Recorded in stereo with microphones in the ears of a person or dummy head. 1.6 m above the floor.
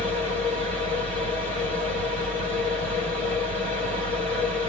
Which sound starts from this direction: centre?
A machine running, at 0.0 s.